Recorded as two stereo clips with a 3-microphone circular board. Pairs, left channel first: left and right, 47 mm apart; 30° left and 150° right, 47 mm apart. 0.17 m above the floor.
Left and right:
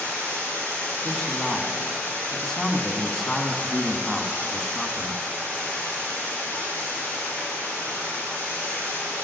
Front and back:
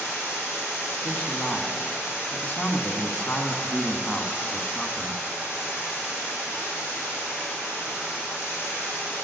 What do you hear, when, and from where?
0.0 s running water: 65° left, 4 m
1.0 s a man speaking: 20° left, 1.0 m